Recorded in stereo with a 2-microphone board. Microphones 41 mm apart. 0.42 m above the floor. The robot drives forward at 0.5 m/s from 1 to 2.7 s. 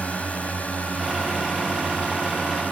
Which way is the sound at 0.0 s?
35° left (ahead or behind).